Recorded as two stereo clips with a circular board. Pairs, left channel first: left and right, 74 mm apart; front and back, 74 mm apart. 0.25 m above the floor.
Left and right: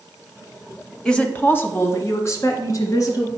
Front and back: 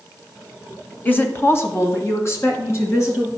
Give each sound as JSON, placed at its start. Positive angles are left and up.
{"t": 1.1, "sound": "a woman speaking", "azimuth_deg": 20, "distance_m": 1.0}